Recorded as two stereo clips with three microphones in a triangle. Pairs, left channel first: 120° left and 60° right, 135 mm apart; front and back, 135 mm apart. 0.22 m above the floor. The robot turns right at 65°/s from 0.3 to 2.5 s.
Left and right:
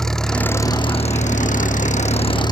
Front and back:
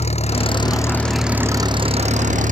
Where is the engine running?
35° left; by 2.5 s 175° left.